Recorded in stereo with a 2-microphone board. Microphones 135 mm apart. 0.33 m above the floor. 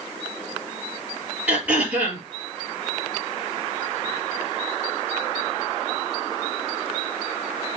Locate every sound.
1.5 s throat clearing: 10° right (ahead or behind), 4.5 m